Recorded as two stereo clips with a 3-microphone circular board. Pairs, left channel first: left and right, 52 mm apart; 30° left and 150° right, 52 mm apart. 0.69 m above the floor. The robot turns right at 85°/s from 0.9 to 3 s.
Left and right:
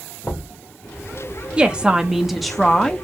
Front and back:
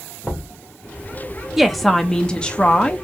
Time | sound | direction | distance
0.2 | knocking | 95° left | 1.9 m
1.6 | a woman speaking | 75° right | 0.6 m